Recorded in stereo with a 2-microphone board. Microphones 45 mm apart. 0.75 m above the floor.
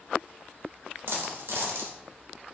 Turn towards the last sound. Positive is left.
turn(degrees=-70)  # may be behind; listen again after turning